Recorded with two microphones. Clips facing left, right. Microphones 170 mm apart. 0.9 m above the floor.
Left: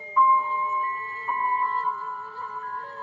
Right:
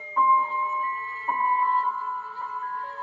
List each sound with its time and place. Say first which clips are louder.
0.2 s a piano: left 1 dB; 40° right (ahead or behind), 3.5 m